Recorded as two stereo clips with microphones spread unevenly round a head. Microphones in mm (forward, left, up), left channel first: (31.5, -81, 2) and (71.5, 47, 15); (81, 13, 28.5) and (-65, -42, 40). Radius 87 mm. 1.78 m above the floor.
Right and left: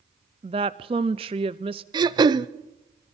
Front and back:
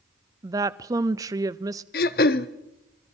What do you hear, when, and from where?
0.4 s a woman speaking: 130° left, 0.5 m
1.9 s throat clearing: 35° left, 0.6 m